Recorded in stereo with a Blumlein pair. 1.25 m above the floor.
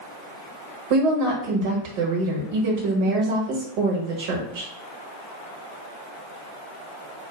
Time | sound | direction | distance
0.9 | a woman speaking | 45° right | 1.1 m